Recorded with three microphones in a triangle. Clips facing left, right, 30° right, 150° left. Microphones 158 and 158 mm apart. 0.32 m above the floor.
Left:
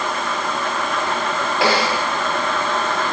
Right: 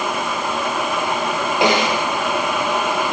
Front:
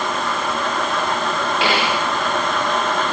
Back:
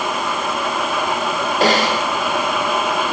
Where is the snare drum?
160° right, 3 m.